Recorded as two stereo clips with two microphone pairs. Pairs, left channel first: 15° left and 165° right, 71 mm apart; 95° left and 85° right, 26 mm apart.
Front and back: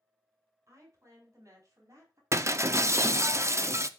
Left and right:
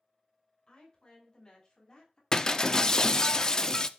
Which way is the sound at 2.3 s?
155° left.